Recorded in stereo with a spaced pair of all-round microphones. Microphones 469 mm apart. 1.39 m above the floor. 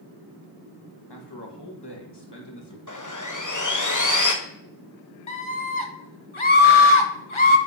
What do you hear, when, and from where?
1.1 s a man speaking: 55° left (ahead or behind), 1.6 m
2.9 s sawing: 40° left (ahead or behind), 1.0 m
5.3 s a scream: 80° left, 1.4 m